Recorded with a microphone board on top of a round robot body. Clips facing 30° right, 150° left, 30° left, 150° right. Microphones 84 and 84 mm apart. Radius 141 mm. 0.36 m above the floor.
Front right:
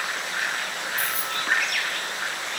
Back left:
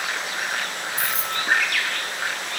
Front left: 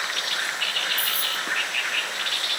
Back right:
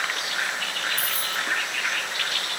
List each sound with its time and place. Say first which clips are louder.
1.0 s keys jangling: back left 3 dB, back right 1 dB; 135° left, 3.5 m